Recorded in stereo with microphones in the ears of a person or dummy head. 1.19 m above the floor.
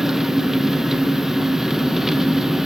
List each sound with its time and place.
0.0 s an engine running: 5° right (ahead or behind), 0.7 m